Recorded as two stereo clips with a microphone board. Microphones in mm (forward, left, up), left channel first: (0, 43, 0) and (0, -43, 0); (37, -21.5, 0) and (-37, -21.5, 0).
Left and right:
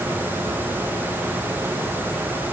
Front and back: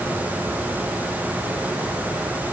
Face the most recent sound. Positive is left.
No sound to turn to.